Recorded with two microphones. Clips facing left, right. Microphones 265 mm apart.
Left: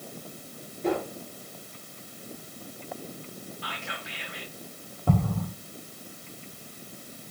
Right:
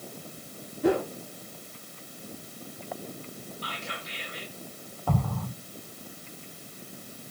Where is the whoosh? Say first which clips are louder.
Right 4 dB; 75° right (ahead or behind), 2 m.